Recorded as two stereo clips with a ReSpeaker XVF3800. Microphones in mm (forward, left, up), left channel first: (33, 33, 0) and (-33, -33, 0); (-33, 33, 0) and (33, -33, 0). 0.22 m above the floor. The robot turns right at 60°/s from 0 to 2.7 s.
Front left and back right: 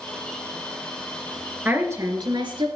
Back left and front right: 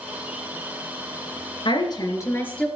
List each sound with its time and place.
1.6 s a woman speaking: 155° left, 3.5 m; by 2.7 s 145° right, 3.5 m